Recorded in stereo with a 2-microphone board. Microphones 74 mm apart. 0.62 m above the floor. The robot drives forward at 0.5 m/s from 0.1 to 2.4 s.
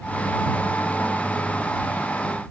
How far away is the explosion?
No explosion in this recording.